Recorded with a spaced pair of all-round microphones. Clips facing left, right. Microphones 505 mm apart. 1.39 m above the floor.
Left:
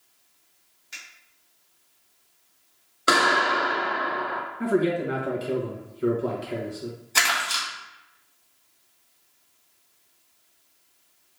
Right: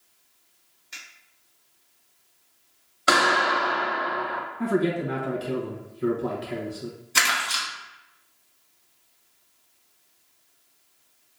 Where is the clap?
10° right (ahead or behind), 1.9 m.